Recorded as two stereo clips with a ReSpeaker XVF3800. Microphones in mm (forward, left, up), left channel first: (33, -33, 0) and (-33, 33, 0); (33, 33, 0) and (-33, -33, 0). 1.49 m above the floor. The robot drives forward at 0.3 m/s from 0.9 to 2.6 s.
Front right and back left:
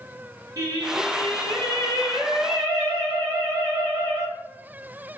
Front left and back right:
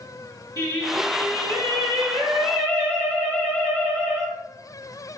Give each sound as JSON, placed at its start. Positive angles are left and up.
{"t": 0.6, "sound": "singing", "azimuth_deg": 180, "distance_m": 1.8}